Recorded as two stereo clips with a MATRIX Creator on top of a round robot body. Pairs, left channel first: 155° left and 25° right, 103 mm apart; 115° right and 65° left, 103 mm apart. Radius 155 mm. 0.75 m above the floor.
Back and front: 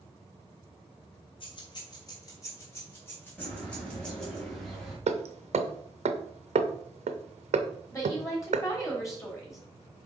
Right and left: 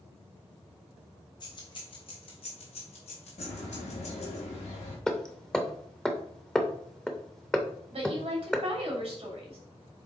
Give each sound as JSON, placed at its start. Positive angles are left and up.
{"t": 1.4, "sound": "keys jangling", "azimuth_deg": -160, "distance_m": 1.7}
{"t": 3.4, "sound": "a bird", "azimuth_deg": -115, "distance_m": 2.0}
{"t": 5.1, "sound": "hammering", "azimuth_deg": -25, "distance_m": 0.7}
{"t": 7.9, "sound": "a woman speaking", "azimuth_deg": 100, "distance_m": 3.0}